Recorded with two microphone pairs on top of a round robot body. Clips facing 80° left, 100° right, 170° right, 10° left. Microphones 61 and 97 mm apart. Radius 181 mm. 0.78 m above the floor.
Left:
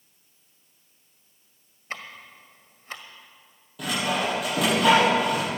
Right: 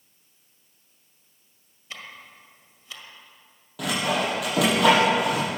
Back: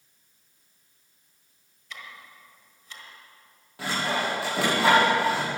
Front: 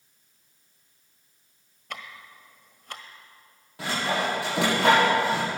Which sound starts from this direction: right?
Sawing, at 3.8 s.